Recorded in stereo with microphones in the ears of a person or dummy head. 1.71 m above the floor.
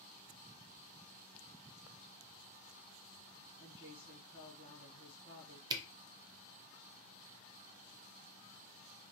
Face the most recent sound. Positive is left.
turn(degrees=-25)  # may be behind; listen again after turning